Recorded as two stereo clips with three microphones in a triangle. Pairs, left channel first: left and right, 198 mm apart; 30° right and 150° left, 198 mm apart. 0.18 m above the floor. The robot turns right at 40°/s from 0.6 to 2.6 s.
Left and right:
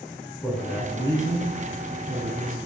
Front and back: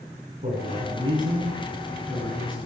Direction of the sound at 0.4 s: 175° right.